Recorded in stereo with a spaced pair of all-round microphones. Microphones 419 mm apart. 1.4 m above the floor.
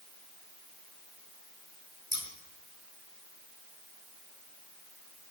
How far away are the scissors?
About 2.5 m.